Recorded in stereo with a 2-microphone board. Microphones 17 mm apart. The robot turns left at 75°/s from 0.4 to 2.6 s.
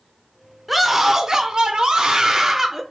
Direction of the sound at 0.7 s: 5° right.